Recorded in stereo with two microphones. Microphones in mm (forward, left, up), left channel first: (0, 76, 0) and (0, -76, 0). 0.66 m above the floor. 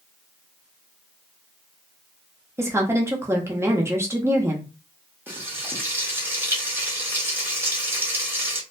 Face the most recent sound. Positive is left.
turn(degrees=-15)  # may be behind; listen again after turning